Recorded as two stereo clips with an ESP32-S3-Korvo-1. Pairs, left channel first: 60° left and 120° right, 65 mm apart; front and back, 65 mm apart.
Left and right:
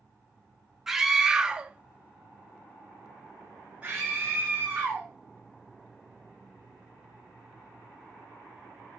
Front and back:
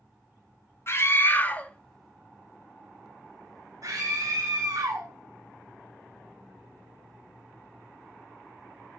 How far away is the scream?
About 1.5 m.